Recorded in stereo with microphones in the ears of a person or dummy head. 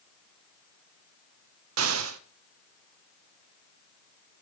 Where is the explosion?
90° right, 0.8 m.